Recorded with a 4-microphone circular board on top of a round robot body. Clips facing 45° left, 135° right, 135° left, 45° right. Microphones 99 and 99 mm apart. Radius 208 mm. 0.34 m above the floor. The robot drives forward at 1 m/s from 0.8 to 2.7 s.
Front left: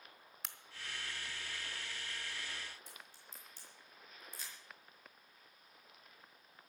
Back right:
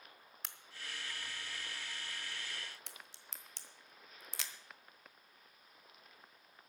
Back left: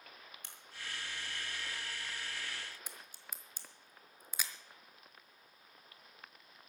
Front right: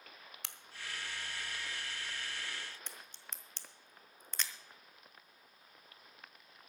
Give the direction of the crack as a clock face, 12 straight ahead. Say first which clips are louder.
Front left 1 dB, front right 1 dB; 1 o'clock.